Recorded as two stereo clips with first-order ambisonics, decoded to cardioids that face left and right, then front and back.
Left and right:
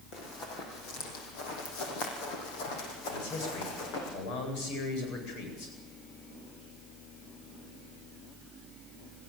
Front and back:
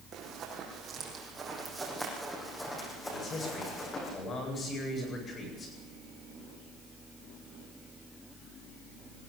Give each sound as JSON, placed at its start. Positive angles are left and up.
{"t": 0.1, "sound": "running footsteps", "azimuth_deg": 130, "distance_m": 5.0}
{"t": 3.1, "sound": "a man speaking", "azimuth_deg": 65, "distance_m": 9.0}